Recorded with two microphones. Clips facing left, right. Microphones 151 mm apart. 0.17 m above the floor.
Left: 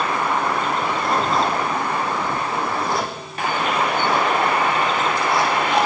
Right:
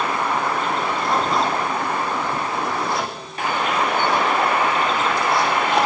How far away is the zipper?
About 6.5 m.